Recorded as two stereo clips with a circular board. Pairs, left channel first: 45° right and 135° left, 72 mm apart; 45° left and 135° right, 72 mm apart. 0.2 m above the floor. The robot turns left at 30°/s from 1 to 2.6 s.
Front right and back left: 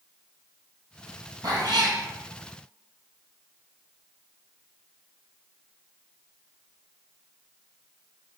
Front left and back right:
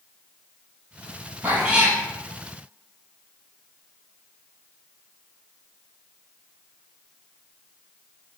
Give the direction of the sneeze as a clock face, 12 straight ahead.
I don't hear a sneeze.